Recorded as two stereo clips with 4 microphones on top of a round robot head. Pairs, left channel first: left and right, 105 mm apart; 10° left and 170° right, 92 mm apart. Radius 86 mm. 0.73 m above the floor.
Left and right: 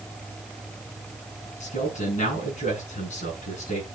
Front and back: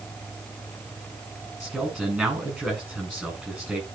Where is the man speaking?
115° left, 8.5 m.